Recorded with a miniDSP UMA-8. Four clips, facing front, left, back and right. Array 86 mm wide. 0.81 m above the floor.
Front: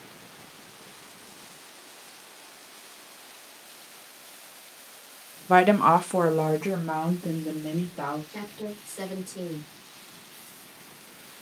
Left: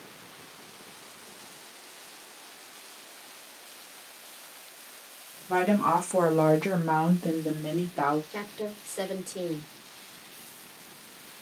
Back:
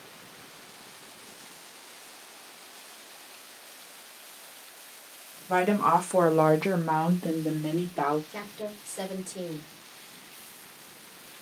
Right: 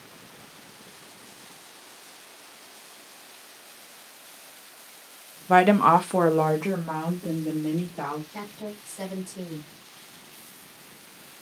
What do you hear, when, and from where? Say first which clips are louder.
5.5 s a woman speaking: right 7 dB, front 5 dB; 50° right, 0.9 m; by 8.2 s 140° left, 1.8 m
8.3 s a woman speaking: left 2 dB, front 1 dB; 110° left, 2 m